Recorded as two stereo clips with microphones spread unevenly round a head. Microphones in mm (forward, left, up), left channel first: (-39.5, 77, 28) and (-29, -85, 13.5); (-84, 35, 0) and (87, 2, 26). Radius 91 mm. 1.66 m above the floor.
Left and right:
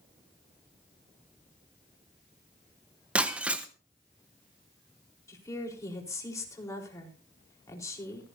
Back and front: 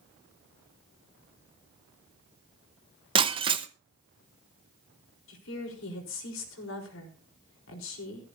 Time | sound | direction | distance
3.1 | breaking glass | straight ahead | 0.9 m
5.3 | a woman speaking | 165° left | 4 m